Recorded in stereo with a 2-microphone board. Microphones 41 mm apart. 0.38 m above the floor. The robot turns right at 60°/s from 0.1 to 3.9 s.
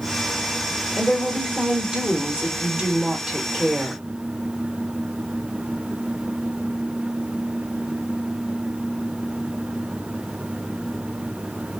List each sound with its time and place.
1.0 s a woman speaking: 10° right (ahead or behind), 1.1 m; by 4.0 s 10° left (ahead or behind), 1.1 m